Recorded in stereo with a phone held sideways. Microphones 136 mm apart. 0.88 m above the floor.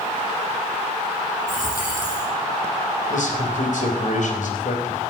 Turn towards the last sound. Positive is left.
turn(degrees=70)  # may be behind; listen again after turning